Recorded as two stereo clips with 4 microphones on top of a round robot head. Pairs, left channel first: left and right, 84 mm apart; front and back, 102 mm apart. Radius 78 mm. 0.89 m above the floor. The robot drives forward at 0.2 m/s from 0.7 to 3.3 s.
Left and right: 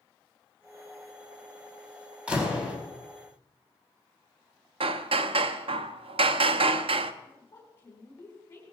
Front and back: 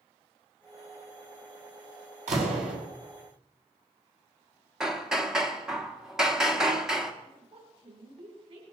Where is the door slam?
165° right, 5 m.